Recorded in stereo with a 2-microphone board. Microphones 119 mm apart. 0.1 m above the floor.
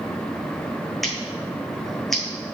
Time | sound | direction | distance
1.0 | scissors | centre (ahead or behind) | 1.2 m